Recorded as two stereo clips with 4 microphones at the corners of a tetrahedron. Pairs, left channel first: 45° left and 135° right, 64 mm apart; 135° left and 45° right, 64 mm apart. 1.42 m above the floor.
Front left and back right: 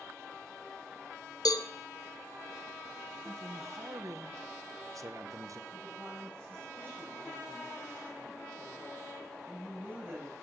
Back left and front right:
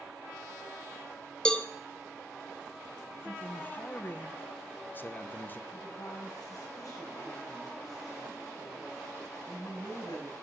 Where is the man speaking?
165° right, 1.1 m.